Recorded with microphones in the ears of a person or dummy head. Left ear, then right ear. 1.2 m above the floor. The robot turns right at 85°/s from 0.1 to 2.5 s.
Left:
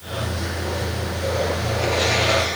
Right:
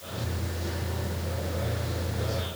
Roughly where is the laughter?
No laughter in this recording.